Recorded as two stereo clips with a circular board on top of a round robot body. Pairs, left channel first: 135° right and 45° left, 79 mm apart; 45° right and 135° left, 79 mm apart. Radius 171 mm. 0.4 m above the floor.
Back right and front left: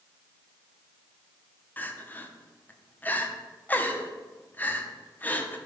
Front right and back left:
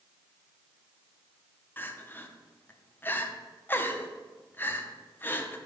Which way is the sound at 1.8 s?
85° right.